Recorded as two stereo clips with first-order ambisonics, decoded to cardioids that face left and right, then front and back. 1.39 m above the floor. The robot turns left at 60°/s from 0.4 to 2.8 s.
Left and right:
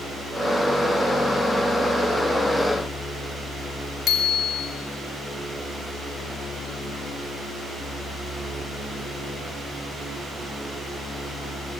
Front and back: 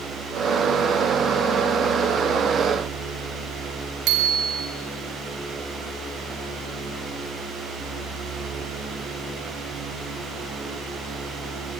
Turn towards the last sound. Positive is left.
turn(degrees=145)